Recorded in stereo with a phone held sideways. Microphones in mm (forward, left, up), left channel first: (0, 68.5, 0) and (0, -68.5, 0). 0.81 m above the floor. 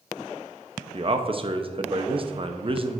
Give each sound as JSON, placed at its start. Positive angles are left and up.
{"t": 0.9, "sound": "a man speaking", "side_deg": -40, "distance_m": 0.6}